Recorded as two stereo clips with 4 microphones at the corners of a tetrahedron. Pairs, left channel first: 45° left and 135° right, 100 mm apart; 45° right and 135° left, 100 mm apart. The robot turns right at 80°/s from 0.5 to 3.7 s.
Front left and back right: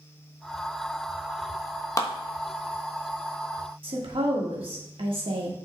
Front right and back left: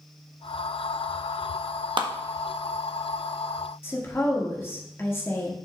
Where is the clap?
100° left, 1.1 m; by 2.1 s 110° left, 1.1 m.